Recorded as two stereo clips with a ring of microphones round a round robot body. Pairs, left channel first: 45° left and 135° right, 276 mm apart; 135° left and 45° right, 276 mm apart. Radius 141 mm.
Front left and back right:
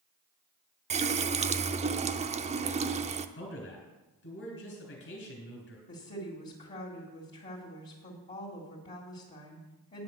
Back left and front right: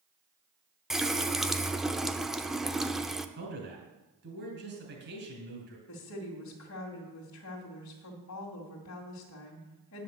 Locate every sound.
0.9 s a running tap: 130° right, 0.5 m
3.4 s a man speaking: 5° left, 3 m
5.9 s a woman speaking: 105° left, 2 m